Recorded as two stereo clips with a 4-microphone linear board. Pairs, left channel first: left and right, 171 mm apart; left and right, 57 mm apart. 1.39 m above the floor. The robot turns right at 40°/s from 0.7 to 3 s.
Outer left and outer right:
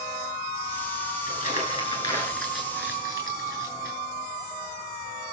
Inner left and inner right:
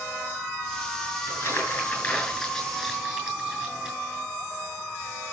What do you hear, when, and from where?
1.3 s crumpling: 50° left (ahead or behind), 7 m; by 4.0 s 15° right (ahead or behind), 7 m